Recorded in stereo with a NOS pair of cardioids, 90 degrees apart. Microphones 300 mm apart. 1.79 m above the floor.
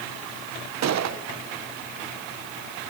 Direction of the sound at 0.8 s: 65° right.